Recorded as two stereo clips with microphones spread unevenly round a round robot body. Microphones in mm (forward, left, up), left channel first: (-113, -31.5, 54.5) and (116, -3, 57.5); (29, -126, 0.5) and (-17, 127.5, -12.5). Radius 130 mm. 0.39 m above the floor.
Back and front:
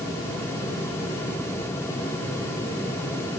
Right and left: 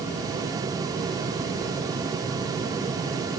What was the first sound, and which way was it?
Only background noise.